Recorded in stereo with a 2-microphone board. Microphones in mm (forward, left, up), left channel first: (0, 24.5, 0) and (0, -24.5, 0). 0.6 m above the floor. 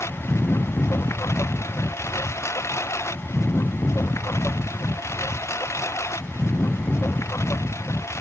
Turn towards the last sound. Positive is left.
turn(degrees=90)